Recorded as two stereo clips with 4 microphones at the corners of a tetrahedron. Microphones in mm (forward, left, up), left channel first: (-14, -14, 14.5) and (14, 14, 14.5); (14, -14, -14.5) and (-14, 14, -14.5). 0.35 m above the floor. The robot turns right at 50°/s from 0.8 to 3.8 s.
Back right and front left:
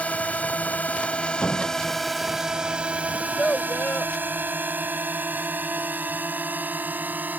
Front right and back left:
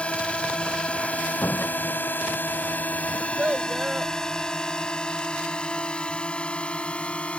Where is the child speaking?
155° left; by 4.1 s 170° right.